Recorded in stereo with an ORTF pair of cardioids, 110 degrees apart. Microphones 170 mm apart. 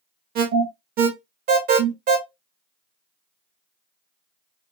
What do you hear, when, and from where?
0.3 s an alarm: 60° right, 1.6 m